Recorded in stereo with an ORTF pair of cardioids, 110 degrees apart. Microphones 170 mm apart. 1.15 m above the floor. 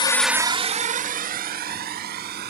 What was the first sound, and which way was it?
A drone, 30° left.